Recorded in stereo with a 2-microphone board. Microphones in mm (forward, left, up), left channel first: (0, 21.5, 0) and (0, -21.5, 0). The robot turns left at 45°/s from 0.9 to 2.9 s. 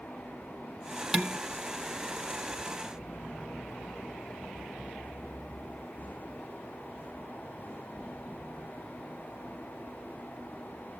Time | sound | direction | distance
1.1 | dishes clattering | 10° right (ahead or behind) | 0.7 m